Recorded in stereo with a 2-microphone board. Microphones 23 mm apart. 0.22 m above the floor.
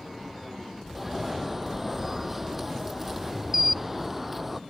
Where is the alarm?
10° right (ahead or behind).